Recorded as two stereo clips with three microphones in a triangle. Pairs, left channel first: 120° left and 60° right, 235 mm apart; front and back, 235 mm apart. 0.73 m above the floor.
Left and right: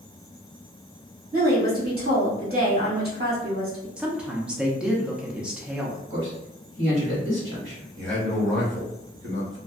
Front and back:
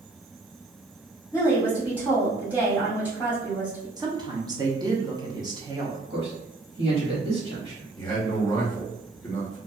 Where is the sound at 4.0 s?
140° right, 0.6 m.